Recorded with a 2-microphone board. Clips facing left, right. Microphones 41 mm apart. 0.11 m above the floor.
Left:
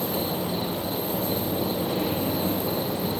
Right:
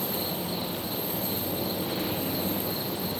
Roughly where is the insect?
Left.